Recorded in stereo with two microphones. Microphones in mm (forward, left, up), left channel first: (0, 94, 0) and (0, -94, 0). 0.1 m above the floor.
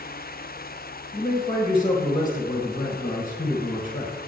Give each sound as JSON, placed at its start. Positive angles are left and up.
{"t": 1.1, "sound": "a man speaking", "side_deg": 20, "distance_m": 1.3}